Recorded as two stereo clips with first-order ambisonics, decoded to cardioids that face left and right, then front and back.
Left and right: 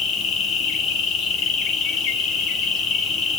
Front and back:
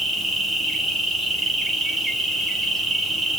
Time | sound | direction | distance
0.0 | an insect | 105° left | 1.2 m